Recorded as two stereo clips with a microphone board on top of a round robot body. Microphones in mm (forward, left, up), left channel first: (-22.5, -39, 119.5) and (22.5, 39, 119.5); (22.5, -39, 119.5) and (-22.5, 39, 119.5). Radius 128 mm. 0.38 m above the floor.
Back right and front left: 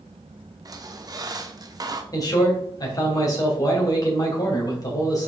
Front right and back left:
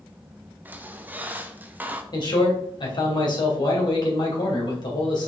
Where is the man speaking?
80° right, 2.5 m.